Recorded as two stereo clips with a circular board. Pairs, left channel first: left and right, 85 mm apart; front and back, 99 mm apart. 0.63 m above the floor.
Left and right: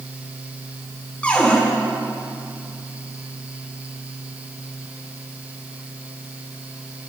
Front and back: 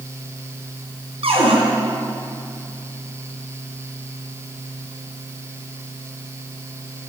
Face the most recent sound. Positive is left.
turn(degrees=165)